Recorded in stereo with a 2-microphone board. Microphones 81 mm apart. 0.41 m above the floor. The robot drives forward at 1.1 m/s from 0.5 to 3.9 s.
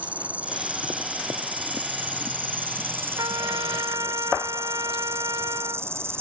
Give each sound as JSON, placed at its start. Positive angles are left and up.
{"t": 0.0, "sound": "an insect", "side_deg": -15}
{"t": 3.2, "sound": "a trumpet", "side_deg": -55}